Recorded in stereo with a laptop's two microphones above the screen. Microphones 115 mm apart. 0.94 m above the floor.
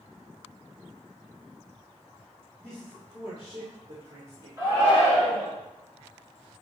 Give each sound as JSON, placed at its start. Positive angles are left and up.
{"t": 2.6, "sound": "a man speaking", "side_deg": -25, "distance_m": 2.0}
{"t": 4.6, "sound": "a shout", "side_deg": -25, "distance_m": 2.5}